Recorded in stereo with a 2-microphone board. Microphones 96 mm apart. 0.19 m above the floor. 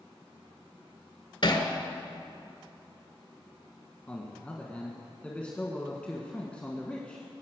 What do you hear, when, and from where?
1.4 s hammering: 60° left (ahead or behind), 1.8 m
4.1 s a man speaking: 10° left (ahead or behind), 1.5 m